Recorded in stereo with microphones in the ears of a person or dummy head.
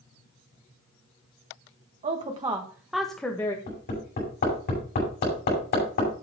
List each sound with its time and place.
2.0 s a woman speaking: 35° right (ahead or behind), 1.6 m; by 3.6 s 20° left (ahead or behind), 1.4 m
3.7 s hammering: 45° left (ahead or behind), 5.5 m